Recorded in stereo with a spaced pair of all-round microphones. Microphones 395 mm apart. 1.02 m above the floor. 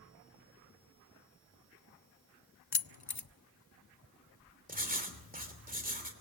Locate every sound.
2.7 s keys jangling: 70° left (ahead or behind), 0.7 m
4.7 s writing: 20° right (ahead or behind), 3 m